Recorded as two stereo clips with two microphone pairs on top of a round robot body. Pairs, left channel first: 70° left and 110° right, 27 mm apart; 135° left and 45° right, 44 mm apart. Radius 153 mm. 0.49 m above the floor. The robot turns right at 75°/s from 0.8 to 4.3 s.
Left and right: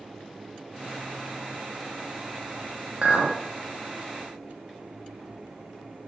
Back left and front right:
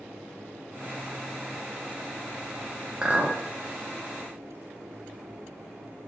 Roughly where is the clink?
Right.